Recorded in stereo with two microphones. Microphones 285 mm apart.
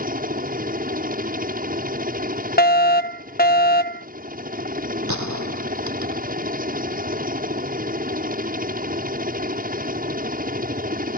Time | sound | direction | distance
0.0 | a helicopter | 30° right (ahead or behind) | ?
2.6 | a fire alarm | 30° left (ahead or behind) | ?
5.1 | a gunshot | 80° right | ?